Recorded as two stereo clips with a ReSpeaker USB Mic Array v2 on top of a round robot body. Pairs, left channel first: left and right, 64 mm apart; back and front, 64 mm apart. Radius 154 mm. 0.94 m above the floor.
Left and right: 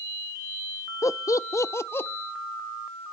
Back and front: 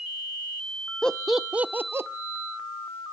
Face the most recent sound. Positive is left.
turn(degrees=40)